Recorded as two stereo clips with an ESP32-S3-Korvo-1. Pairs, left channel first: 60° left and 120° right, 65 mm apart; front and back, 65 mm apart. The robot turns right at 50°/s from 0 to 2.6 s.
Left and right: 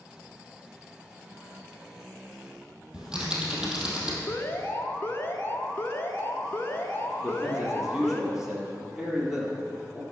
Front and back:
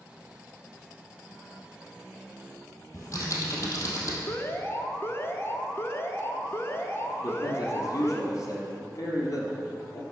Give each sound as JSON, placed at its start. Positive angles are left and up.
{"t": 2.9, "sound": "typing on a keyboard", "azimuth_deg": -45, "distance_m": 2.5}
{"t": 4.3, "sound": "an alarm", "azimuth_deg": 25, "distance_m": 1.0}
{"t": 7.2, "sound": "a man speaking", "azimuth_deg": -40, "distance_m": 3.0}